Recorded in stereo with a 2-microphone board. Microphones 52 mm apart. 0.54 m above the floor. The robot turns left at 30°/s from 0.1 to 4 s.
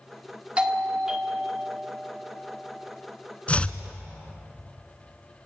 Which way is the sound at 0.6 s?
145° right.